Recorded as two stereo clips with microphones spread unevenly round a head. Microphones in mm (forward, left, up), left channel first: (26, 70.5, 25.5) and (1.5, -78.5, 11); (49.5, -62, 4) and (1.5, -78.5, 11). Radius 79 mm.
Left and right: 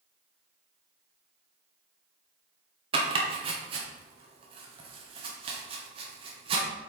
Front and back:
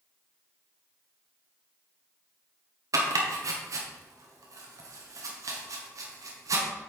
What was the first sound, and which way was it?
Chopping, 160° right.